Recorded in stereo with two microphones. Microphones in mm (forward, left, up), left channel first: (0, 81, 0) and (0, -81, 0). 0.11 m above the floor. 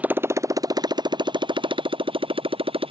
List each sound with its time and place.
0.0 s a motorcycle: 10° right (ahead or behind); by 2.9 s 35° right (ahead or behind)